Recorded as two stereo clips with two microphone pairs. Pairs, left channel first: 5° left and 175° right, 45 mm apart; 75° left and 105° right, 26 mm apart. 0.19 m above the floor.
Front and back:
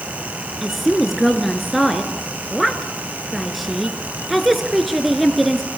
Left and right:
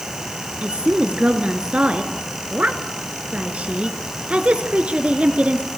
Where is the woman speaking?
85° right, 2.5 m.